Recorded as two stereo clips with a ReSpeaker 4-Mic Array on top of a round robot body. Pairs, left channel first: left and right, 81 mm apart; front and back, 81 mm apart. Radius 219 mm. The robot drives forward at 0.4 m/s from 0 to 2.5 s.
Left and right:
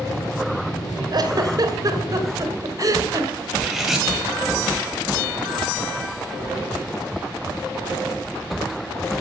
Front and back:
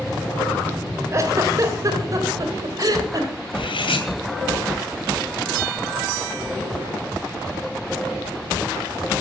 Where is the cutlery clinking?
5° right, 2.5 m.